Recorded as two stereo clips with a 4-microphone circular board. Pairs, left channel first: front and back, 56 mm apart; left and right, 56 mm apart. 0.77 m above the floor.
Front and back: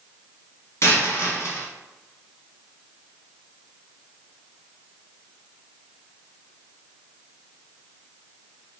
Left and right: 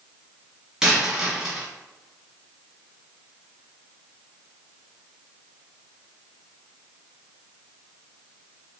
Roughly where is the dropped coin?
Ahead.